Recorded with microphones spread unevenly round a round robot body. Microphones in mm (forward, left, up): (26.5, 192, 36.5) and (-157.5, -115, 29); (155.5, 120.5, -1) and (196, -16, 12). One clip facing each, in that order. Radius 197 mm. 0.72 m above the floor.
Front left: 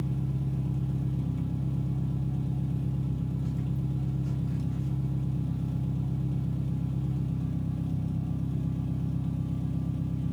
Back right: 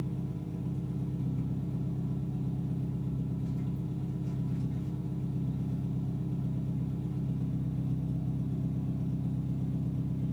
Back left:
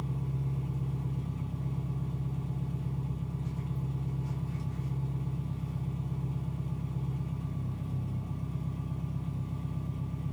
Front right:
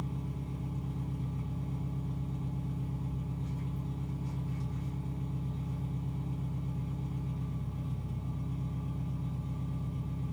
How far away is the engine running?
About 1.0 m.